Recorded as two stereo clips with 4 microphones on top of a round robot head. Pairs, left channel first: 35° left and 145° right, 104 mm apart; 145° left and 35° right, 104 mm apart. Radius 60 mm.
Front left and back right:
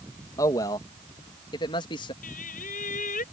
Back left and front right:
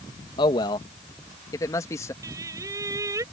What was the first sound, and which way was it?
A man speaking, 95° left.